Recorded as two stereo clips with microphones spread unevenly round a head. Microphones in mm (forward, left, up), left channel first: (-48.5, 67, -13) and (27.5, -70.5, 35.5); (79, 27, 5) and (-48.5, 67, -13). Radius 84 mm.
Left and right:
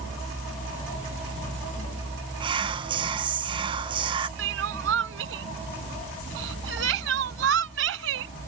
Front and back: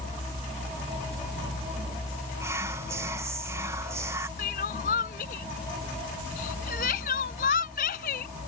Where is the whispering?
130° right.